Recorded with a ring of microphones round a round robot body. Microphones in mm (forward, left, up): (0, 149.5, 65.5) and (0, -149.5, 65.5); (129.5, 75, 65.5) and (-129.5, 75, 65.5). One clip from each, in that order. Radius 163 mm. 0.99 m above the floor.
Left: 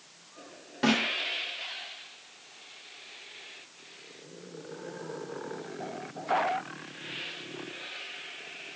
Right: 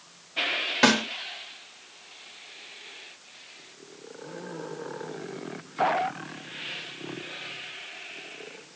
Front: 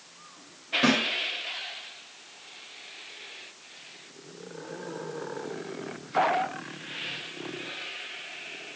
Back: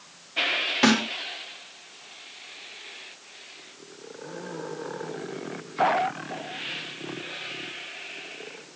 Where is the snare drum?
120° right, 2.0 m.